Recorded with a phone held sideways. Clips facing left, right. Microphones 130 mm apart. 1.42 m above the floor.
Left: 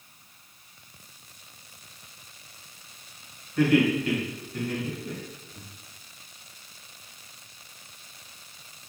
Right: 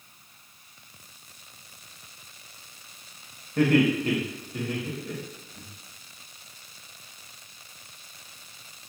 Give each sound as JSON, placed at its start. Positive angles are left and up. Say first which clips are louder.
{"t": 3.6, "sound": "laughter", "louder": "even", "side_deg": -55, "distance_m": 1.1}